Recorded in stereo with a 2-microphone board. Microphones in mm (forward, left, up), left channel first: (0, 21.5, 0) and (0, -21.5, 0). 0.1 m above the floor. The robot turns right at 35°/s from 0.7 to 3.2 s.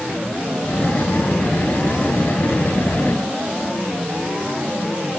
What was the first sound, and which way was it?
Only background noise.